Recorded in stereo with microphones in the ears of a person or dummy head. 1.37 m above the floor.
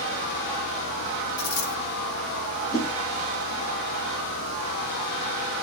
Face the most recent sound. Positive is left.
turn(degrees=35)  # may be behind; listen again after turning